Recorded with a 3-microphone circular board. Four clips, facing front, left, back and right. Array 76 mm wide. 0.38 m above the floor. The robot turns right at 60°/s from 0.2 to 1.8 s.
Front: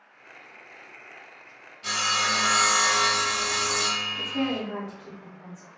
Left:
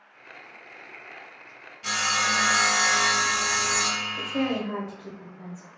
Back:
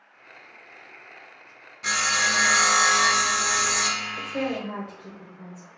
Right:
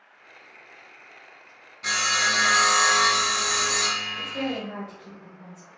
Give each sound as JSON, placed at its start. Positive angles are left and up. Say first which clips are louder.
{"t": 1.8, "sound": "sawing", "louder": "right 1 dB, back 2 dB", "azimuth_deg": -145, "distance_m": 1.0}
{"t": 4.2, "sound": "a woman speaking", "louder": "left 3 dB, front 2 dB", "azimuth_deg": 145, "distance_m": 1.2}